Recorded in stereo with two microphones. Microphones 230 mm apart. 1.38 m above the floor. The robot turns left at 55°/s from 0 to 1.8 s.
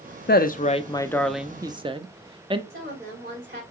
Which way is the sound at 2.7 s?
40° right (ahead or behind).